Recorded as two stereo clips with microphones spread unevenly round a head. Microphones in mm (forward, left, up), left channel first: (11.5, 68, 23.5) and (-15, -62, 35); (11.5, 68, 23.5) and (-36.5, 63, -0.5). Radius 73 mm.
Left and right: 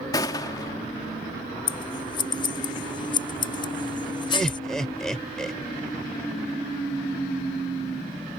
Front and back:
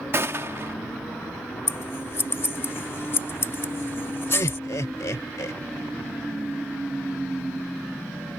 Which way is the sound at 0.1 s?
140° left.